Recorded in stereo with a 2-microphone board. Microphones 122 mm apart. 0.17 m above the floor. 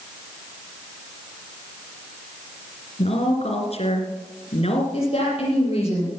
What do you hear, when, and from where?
3.0 s a woman speaking: 55° left (ahead or behind), 2.5 m
4.9 s a woman speaking: 50° left (ahead or behind), 6 m